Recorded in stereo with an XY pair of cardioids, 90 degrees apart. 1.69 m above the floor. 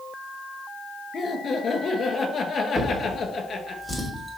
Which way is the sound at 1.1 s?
50° left.